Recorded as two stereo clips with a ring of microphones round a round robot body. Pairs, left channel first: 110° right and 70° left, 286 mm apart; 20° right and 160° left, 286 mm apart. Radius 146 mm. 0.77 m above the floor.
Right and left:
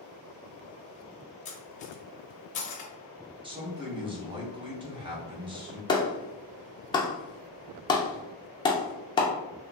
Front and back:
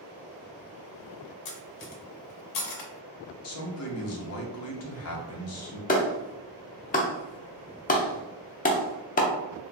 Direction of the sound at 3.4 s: 5° right.